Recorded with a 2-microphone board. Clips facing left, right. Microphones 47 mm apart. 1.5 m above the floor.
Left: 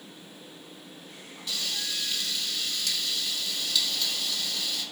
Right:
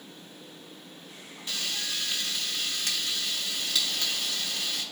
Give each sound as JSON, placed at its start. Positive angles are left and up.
{"t": 1.5, "sound": "frying", "side_deg": -35, "distance_m": 2.0}